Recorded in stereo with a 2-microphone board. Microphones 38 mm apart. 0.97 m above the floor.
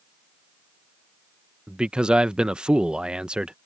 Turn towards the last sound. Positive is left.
turn(degrees=-25)  # may be behind; listen again after turning